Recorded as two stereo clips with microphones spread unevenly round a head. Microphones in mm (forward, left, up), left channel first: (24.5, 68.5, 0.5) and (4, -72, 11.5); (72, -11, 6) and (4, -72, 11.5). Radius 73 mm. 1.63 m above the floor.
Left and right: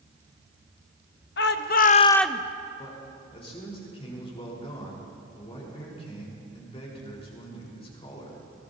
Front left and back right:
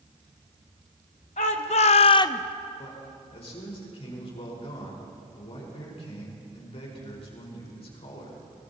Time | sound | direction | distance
1.4 | a shout | 70° left | 1.1 m
2.8 | a man speaking | 30° left | 4.5 m